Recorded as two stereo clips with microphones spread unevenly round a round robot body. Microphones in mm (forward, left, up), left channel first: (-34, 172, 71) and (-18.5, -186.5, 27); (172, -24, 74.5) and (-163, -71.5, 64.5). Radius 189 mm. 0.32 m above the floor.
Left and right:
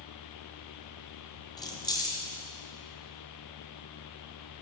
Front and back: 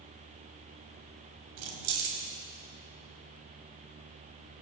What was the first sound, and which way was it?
Keys jangling, 175° left.